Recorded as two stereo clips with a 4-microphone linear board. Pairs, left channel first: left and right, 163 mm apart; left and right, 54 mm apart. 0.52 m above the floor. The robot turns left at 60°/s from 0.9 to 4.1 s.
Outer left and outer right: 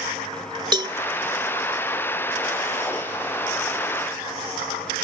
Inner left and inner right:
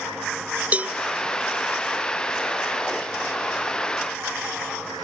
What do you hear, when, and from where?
0.7 s a cowbell: 30° right (ahead or behind)